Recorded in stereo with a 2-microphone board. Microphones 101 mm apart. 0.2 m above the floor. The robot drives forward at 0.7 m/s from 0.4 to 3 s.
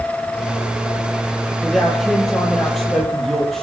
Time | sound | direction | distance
1.6 | a man speaking | 5° left (ahead or behind) | 6 m